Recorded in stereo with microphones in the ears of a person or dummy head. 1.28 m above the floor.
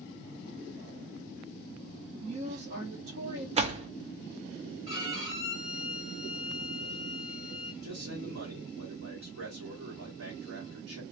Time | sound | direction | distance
2.2 | a woman speaking | 60° right (ahead or behind) | 1.1 m
3.5 | a door slam | 30° right (ahead or behind) | 0.5 m
4.9 | a violin | 30° right (ahead or behind) | 2.5 m
7.8 | a man speaking | 70° right (ahead or behind) | 1.1 m